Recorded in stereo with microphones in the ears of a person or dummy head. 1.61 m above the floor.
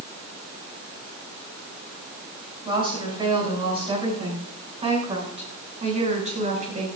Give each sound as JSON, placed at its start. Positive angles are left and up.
{"t": 2.6, "sound": "a woman speaking", "side_deg": -20, "distance_m": 9.5}